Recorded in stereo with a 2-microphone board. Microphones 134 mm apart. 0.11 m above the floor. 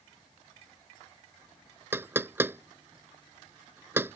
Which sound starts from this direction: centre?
Knocking, at 1.9 s.